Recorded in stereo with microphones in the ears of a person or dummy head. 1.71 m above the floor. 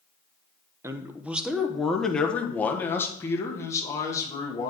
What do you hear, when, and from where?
0.8 s a man speaking: 20° right (ahead or behind), 0.8 m; by 4.7 s 20° left (ahead or behind), 2.5 m